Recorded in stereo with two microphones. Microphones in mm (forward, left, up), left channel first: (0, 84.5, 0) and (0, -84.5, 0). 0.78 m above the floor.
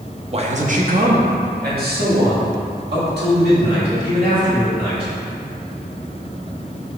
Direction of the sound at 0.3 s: 35° right (ahead or behind).